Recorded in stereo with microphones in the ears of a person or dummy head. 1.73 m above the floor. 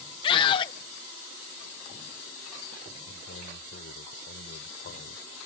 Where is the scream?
30° left (ahead or behind).